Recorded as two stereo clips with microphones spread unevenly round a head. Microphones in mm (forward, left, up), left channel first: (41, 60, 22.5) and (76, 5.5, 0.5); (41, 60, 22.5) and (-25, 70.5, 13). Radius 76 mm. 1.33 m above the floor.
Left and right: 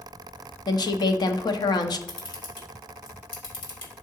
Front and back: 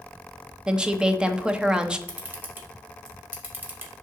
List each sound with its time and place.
0.7 s a woman speaking: 100° left, 0.9 m
2.1 s a camera shutter: 110° left, 2 m